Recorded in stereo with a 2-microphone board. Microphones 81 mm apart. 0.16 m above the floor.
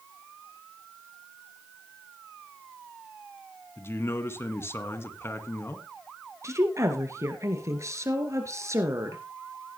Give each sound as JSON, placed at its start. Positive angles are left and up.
{"t": 3.8, "sound": "a man speaking", "side_deg": 35, "distance_m": 1.7}
{"t": 6.4, "sound": "a woman speaking", "side_deg": -40, "distance_m": 2.5}